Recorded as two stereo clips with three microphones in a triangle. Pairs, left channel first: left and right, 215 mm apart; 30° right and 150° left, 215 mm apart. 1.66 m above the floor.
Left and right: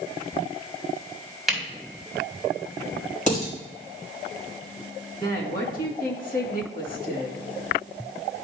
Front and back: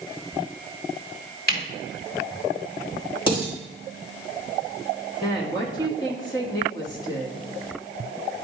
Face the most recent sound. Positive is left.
turn(degrees=40)